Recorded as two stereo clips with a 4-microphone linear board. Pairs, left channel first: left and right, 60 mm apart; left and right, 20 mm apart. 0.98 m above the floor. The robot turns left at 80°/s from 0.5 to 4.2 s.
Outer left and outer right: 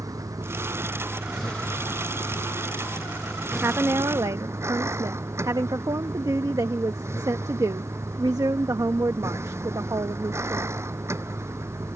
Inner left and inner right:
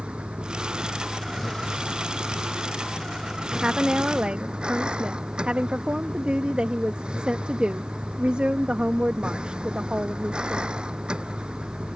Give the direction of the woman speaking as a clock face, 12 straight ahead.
1 o'clock.